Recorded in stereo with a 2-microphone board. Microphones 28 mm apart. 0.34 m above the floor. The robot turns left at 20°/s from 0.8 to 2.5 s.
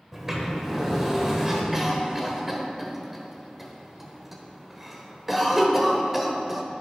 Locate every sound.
0.1 s a sliding door: 10° right (ahead or behind), 1.6 m; by 1.6 s 20° right (ahead or behind), 1.6 m
1.7 s a cough: 10° right (ahead or behind), 1.3 m; by 6.6 s 5° right (ahead or behind), 1.3 m